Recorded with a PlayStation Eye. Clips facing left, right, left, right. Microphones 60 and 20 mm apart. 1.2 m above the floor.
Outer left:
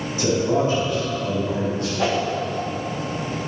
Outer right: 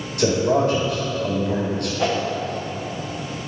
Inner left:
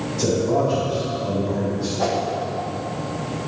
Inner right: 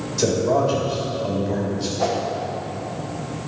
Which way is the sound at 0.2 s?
60° right (ahead or behind).